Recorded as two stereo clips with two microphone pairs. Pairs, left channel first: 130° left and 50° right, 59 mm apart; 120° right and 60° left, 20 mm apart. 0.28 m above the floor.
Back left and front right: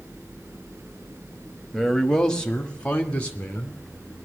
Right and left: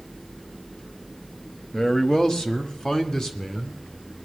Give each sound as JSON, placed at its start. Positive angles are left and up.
{"t": 1.7, "sound": "a man speaking", "azimuth_deg": -150, "distance_m": 1.2}